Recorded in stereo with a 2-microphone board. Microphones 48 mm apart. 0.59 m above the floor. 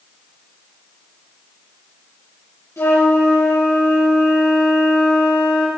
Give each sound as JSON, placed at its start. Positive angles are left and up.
{"t": 2.8, "sound": "a flute", "side_deg": 85, "distance_m": 4.0}